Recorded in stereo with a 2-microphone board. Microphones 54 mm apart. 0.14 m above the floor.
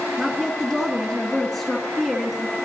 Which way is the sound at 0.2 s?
Centre (ahead or behind).